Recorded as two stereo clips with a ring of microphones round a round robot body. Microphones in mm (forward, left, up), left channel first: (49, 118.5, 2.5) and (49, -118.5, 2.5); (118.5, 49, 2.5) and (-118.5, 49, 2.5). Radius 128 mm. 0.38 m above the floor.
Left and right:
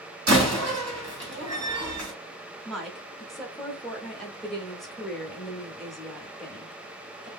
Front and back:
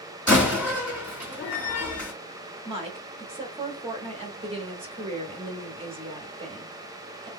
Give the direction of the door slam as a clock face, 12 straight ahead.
3 o'clock.